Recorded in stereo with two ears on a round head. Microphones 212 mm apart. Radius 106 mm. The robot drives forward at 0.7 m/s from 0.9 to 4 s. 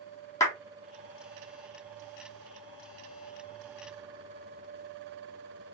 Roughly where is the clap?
Centre.